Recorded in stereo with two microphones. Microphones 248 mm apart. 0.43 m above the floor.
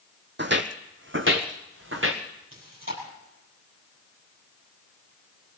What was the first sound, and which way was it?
Footsteps, 45° right (ahead or behind).